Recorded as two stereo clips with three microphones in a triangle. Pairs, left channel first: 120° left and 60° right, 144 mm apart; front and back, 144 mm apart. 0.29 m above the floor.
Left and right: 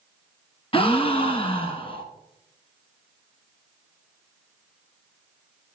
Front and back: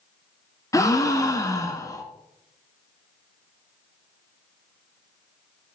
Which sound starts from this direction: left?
A gasp, at 0.7 s.